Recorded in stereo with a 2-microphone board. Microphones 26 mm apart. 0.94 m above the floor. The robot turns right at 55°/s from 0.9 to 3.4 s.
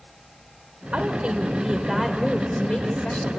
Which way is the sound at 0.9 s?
70° right.